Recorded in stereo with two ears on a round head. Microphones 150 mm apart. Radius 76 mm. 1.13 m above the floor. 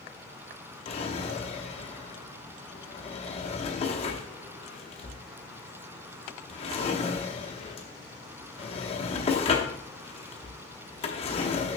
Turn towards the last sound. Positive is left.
turn(degrees=35)  # may be behind; listen again after turning